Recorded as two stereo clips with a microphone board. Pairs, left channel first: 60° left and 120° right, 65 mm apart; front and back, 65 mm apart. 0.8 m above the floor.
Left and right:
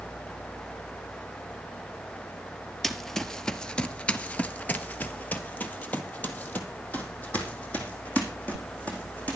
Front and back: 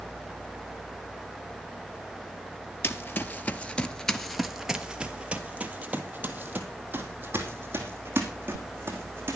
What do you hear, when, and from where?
2.8 s running footsteps: 20° right, 1.0 m; by 9.4 s 130° left, 3 m